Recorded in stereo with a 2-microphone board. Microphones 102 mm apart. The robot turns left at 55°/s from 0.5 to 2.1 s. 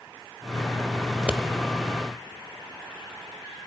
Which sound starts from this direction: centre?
Scissors, at 1.1 s.